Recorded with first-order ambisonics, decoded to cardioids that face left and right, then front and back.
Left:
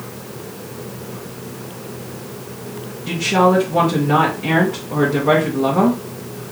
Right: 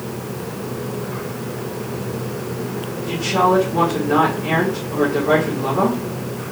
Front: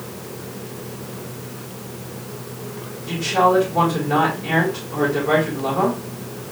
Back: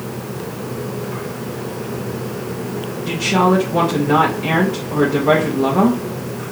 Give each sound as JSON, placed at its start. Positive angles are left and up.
{"t": 3.1, "sound": "a woman speaking", "azimuth_deg": 145, "distance_m": 1.7}